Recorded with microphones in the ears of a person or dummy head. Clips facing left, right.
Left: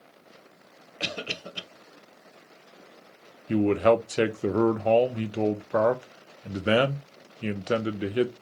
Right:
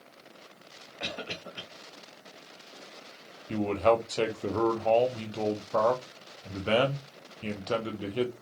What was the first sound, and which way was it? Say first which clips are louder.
A cough: left 3 dB; 50° left (ahead or behind).